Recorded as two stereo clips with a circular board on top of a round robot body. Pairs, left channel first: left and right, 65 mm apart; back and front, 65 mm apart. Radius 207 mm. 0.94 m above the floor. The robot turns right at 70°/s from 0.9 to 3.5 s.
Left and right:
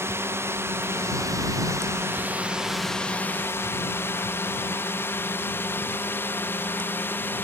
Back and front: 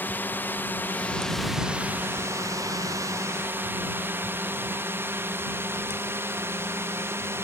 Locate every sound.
0.0 s a drone: 125° right; by 7.5 s 40° left